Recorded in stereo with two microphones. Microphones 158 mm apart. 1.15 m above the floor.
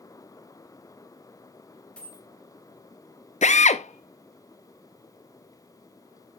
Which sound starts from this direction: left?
A drill, at 3.4 s.